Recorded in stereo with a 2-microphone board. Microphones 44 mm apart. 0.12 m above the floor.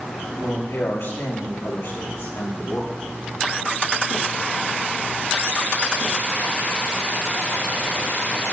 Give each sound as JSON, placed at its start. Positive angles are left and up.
{"t": 0.3, "sound": "a man speaking", "side_deg": 75, "distance_m": 8.0}